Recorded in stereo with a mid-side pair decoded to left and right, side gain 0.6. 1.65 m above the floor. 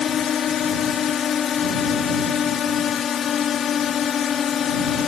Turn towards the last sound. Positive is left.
turn(degrees=45)